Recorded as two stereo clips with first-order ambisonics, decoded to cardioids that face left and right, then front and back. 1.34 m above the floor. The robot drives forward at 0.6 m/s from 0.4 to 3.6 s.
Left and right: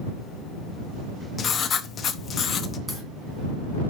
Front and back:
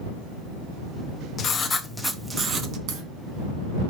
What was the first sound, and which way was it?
Writing, 35° left.